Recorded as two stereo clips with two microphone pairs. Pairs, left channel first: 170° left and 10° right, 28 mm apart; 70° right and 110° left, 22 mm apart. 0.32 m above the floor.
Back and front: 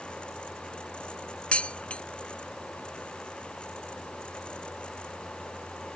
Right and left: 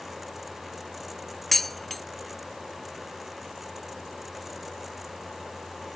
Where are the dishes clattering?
150° right.